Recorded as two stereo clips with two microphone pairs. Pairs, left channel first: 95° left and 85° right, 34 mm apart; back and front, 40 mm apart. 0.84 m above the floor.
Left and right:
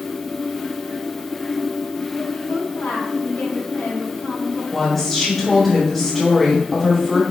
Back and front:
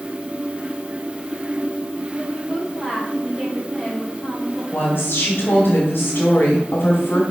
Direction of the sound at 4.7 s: Straight behind.